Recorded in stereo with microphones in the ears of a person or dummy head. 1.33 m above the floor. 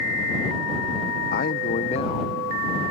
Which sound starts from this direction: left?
A man speaking, at 1.3 s.